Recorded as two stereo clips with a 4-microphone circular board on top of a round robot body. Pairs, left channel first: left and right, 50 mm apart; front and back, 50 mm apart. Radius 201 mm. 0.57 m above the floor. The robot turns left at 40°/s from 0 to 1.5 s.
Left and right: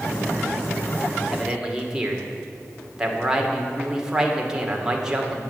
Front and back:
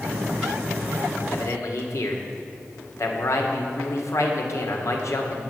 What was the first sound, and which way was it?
A man speaking, 5° right.